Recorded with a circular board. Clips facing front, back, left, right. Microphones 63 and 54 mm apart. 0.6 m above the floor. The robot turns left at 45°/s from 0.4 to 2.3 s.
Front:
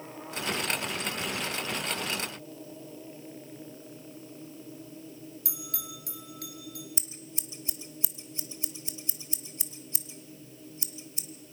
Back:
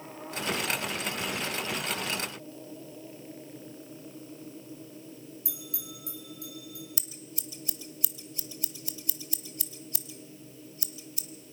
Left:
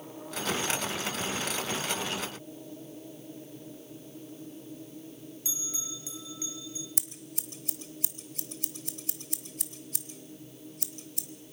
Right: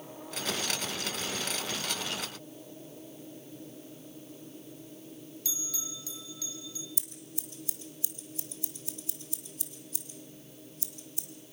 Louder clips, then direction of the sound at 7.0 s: Even, left 2 dB; 65° left.